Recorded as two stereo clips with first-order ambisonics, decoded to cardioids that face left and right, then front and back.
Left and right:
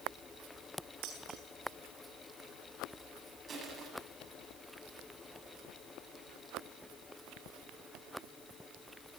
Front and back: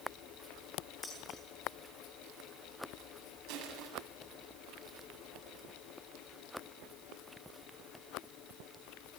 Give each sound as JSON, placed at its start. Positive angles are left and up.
{"t": 1.0, "sound": "dishes clattering", "azimuth_deg": -75, "distance_m": 10.0}
{"t": 3.5, "sound": "crushing", "azimuth_deg": -155, "distance_m": 8.0}